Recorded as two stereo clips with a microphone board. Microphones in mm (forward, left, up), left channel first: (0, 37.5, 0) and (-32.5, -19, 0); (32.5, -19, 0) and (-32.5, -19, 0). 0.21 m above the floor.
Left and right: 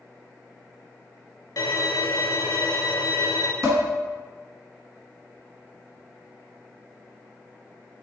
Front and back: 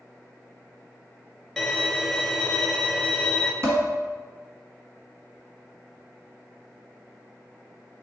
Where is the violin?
80° left, 0.6 m.